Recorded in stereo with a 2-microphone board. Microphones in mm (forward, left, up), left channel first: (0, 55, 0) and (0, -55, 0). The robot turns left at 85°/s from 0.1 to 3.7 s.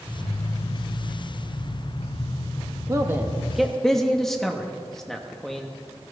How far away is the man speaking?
About 1.2 m.